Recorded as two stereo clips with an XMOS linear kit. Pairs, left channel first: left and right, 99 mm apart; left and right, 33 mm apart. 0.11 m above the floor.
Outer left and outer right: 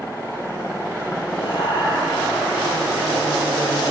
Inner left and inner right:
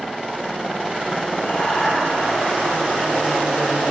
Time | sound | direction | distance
1.4 | laughter | 50° left (ahead or behind) | 3 m